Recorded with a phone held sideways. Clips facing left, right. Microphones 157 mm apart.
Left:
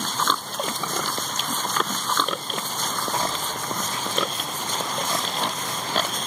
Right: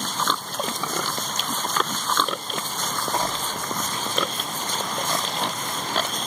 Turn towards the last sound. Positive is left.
turn(degrees=5)  # may be behind; listen again after turning